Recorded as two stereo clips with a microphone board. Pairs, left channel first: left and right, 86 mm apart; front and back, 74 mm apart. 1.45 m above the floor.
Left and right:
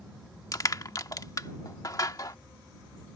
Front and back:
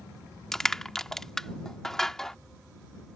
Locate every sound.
0.5 s crushing: 80° left